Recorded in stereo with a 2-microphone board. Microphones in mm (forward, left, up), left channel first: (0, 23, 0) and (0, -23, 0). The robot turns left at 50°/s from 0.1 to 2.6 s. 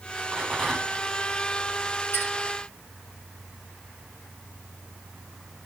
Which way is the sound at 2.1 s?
55° left (ahead or behind).